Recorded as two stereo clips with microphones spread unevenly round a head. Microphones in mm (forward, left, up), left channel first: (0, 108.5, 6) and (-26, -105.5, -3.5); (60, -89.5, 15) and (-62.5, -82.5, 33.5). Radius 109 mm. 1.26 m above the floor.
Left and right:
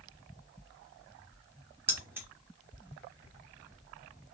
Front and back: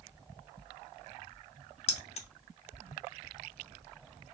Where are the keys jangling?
20° right, 0.6 m.